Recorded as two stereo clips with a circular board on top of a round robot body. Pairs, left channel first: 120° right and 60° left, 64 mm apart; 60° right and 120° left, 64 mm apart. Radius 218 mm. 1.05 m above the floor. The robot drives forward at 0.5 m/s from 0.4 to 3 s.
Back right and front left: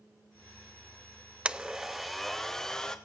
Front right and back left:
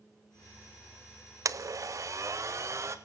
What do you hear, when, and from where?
1.4 s a blender: 130° left, 0.7 m; by 3.0 s 160° left, 1.2 m